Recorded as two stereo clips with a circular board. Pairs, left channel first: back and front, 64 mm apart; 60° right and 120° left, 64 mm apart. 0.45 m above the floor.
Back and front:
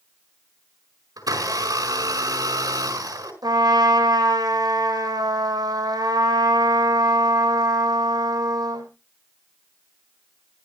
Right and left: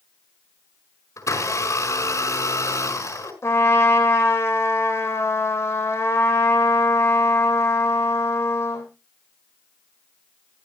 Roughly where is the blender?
Ahead.